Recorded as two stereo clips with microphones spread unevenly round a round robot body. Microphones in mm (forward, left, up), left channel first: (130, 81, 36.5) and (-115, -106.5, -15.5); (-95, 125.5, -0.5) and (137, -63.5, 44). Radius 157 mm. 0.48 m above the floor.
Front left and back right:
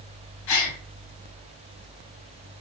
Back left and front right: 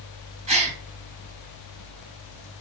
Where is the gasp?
30° left, 3.5 m.